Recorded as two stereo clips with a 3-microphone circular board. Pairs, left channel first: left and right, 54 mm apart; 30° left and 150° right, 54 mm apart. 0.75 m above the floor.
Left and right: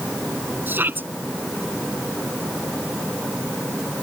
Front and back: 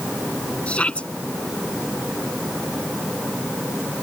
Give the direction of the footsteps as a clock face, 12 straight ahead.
No footsteps in this recording.